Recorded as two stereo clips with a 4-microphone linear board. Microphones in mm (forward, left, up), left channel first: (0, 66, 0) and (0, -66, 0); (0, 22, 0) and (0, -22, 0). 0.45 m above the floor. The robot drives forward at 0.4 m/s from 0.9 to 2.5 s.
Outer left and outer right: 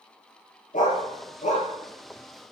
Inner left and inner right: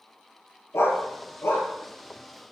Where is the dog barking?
75° left (ahead or behind), 2.5 m; by 1.7 s 70° left (ahead or behind), 3 m.